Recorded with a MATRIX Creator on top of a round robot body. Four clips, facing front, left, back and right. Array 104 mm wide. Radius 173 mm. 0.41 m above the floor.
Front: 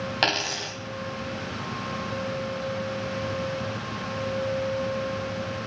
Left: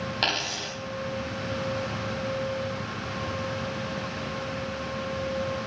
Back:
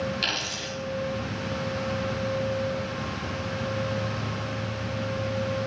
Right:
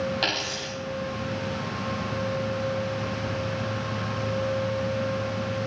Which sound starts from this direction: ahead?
A dropped coin, at 0.2 s.